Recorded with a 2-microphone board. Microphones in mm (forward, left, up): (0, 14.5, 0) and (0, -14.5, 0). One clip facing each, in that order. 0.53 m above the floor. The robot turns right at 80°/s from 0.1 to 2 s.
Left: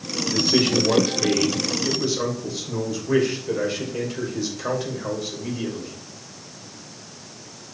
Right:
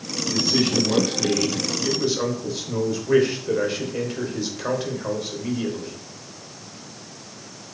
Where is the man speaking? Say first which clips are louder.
Left 2 dB; 55° left, 2.5 m; by 6.0 s 165° right, 2.5 m.